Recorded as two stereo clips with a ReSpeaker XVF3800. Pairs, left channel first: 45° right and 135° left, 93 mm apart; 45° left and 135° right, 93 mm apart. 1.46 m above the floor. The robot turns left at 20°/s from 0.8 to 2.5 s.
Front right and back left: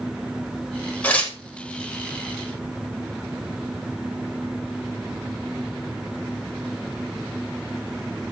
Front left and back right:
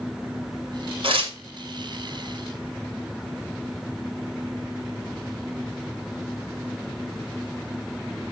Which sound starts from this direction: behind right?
Tearing paper, at 1.0 s.